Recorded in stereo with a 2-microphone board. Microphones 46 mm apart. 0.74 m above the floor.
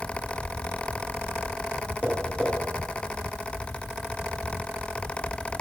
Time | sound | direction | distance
2.0 | tapping | 25° right (ahead or behind) | 2.5 m